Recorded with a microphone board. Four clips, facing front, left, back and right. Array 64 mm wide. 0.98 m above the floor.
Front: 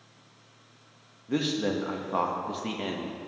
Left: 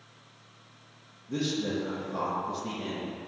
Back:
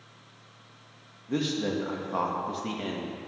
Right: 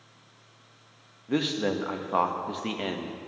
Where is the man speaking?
80° right, 1.0 m.